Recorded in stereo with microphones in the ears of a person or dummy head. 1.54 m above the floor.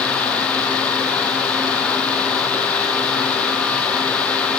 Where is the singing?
I don't hear singing.